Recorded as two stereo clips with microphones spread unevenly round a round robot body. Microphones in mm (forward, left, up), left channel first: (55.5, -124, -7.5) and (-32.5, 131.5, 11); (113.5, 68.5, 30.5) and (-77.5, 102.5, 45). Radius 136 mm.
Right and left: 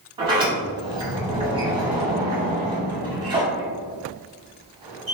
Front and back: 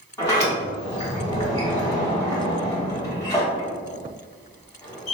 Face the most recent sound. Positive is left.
turn(degrees=45)